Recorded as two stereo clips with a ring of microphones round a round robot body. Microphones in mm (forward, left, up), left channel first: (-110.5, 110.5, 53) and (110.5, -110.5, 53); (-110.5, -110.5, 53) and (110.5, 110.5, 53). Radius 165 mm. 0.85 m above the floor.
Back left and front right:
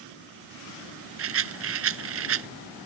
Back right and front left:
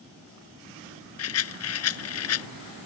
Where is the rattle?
90° right.